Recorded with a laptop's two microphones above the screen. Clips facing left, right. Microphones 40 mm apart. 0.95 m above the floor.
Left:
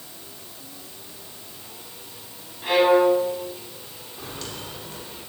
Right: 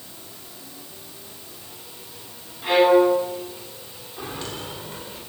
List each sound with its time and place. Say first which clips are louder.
2.6 s a violin: right 1 dB; centre (ahead or behind), 9 m
4.2 s footsteps: right 4 dB; 15° right (ahead or behind), 5.5 m